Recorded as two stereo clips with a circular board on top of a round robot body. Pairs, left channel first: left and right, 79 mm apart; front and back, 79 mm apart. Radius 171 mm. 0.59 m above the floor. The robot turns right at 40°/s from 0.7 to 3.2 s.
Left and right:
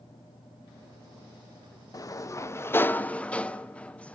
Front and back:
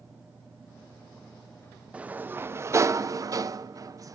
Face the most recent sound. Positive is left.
turn(degrees=160)